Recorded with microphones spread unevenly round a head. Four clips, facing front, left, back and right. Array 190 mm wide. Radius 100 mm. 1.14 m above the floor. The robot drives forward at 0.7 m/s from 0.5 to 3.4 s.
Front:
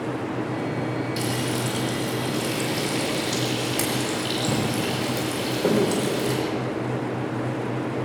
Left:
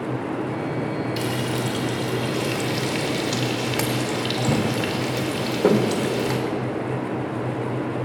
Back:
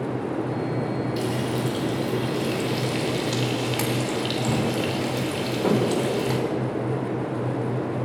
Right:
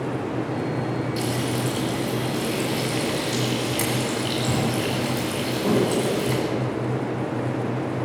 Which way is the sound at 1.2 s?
65° left.